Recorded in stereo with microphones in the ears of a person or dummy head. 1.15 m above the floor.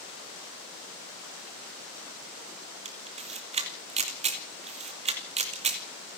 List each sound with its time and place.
2.9 s a camera shutter: 30° right (ahead or behind), 2.5 m